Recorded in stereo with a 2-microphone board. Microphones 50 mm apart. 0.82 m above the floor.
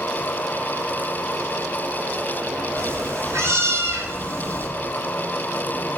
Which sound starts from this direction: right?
A cat meowing, at 2.8 s.